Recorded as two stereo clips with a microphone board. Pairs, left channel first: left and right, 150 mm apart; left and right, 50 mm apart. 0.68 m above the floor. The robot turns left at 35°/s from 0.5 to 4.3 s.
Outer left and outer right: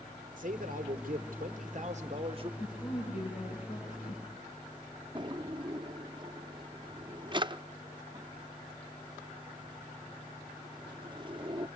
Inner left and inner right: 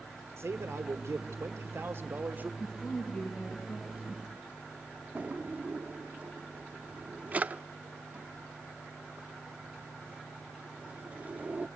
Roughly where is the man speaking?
Right.